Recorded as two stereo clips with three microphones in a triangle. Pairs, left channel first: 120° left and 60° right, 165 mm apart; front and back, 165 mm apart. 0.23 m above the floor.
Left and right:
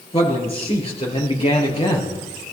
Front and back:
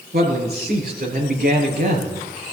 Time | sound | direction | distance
0.1 | a man speaking | 175° left | 5.5 m